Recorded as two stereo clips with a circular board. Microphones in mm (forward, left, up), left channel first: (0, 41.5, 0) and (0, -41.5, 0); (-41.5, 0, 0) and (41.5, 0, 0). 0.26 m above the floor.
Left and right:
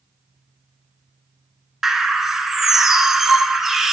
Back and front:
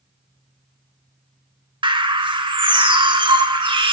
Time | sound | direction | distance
1.8 | a bird | 5° right | 0.6 m